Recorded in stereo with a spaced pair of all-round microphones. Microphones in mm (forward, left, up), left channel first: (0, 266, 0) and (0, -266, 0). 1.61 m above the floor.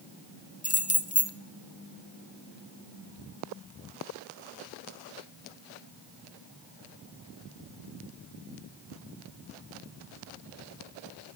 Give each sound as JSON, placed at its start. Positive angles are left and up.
{"t": 0.6, "sound": "keys jangling", "side_deg": 15, "distance_m": 0.5}